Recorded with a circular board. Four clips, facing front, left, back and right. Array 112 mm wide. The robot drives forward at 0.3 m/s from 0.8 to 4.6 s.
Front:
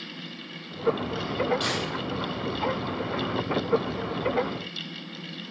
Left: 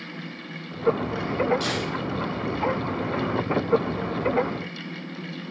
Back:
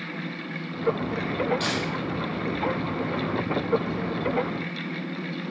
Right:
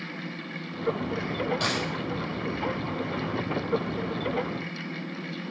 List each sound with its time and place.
1.6 s a dropped coin: 85° right, 3 m